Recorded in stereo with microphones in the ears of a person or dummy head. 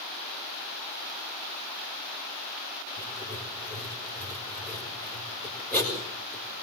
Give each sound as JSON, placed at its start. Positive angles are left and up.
{"t": 3.0, "sound": "writing", "side_deg": 10, "distance_m": 6.0}